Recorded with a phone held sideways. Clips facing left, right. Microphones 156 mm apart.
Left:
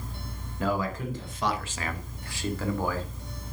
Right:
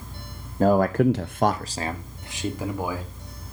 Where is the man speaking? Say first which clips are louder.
Right 11 dB; 40° right (ahead or behind), 0.9 m; by 3.1 s 15° right (ahead or behind), 3 m.